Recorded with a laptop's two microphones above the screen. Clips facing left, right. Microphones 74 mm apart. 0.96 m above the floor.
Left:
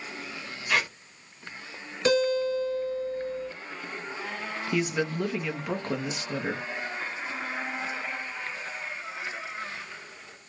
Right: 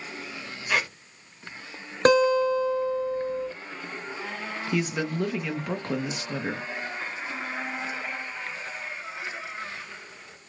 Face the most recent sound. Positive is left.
turn(degrees=0)  # may be behind; listen again after turning